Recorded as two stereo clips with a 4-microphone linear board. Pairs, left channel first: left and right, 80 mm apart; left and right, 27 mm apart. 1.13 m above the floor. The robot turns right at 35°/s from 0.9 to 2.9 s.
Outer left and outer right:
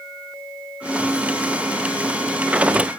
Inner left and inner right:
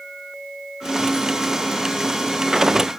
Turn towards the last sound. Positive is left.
No sound to turn to.